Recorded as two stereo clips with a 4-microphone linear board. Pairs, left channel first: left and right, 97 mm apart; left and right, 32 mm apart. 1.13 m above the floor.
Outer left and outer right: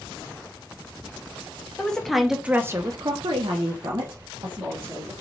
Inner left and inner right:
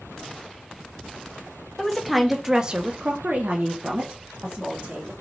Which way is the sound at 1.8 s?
10° left (ahead or behind).